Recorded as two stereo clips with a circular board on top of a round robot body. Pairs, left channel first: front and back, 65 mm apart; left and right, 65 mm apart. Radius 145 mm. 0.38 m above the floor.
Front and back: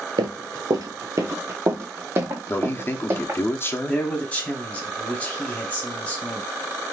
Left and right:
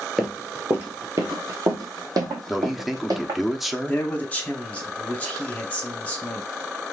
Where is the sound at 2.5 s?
5° right, 1.0 m.